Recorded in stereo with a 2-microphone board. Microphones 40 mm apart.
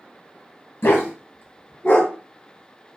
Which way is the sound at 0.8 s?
80° left.